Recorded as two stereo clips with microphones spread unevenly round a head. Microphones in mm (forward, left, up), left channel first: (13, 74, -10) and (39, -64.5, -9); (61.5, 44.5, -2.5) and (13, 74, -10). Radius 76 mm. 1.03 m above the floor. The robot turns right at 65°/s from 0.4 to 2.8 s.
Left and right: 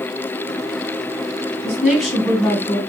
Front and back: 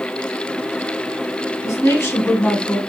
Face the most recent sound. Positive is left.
turn(degrees=60)